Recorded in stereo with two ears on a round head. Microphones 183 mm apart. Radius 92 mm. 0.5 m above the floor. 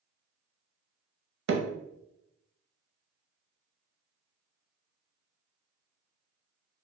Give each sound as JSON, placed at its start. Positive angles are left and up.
{"t": 1.5, "sound": "hammering", "side_deg": -55, "distance_m": 0.7}